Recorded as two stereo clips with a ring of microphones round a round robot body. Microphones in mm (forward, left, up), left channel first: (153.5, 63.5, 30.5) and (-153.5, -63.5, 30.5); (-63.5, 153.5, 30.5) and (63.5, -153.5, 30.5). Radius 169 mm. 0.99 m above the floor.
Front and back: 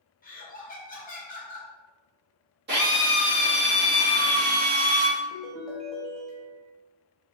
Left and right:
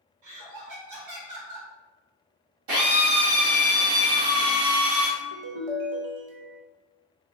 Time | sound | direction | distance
0.2 | laughter | 40° right | 1.2 m
2.7 | a drill | 95° right | 1.4 m
5.2 | a ringtone | 65° right | 0.7 m